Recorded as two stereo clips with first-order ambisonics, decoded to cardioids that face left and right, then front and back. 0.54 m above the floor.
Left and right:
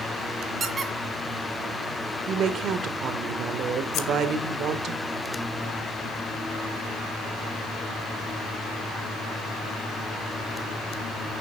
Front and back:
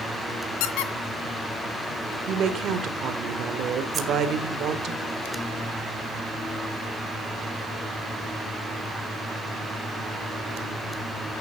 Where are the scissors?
125° left, 1.4 m.